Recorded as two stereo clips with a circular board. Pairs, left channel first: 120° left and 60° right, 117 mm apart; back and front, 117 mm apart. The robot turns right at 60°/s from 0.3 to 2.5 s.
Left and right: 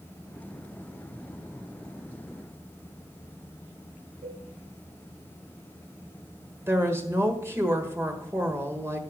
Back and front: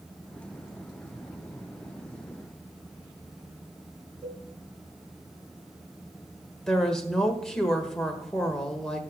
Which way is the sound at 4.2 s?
65° right.